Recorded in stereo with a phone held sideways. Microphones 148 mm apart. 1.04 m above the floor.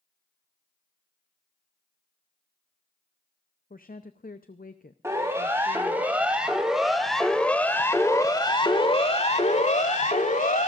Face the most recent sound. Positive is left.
turn(degrees=60)  # may be behind; listen again after turning